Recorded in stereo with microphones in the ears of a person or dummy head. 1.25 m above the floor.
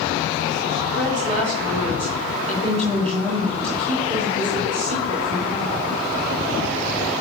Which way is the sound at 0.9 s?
40° right (ahead or behind).